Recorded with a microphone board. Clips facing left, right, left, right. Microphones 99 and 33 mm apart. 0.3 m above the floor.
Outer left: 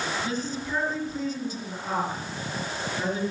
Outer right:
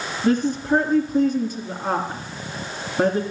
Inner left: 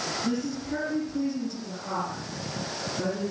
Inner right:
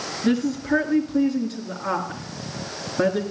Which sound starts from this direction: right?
A woman speaking, at 0.2 s.